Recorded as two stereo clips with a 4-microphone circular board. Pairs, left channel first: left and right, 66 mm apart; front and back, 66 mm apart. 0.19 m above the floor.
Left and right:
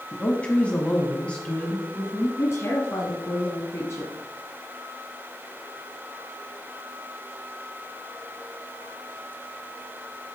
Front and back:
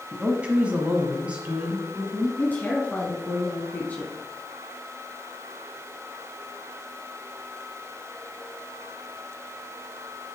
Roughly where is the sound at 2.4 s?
Ahead left.